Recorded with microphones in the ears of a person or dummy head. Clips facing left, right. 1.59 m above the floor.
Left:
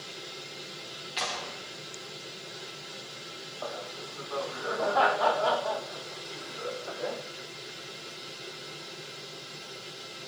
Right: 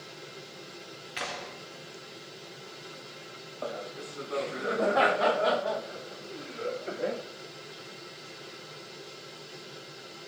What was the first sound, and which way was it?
A clap, 30° right (ahead or behind).